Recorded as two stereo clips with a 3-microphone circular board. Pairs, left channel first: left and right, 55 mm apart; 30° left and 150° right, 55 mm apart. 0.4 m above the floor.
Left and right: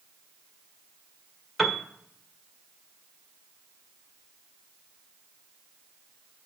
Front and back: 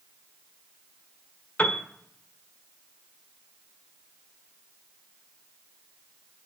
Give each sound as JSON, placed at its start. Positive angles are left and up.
{"t": 1.6, "sound": "a piano", "azimuth_deg": 5, "distance_m": 1.5}